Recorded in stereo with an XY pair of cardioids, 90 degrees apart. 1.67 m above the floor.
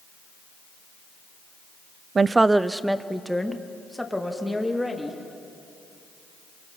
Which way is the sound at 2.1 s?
45° right.